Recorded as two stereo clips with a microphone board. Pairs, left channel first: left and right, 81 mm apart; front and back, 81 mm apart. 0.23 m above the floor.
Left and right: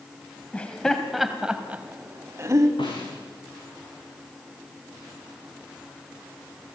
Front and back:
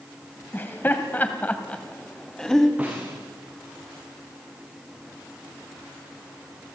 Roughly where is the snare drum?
Left.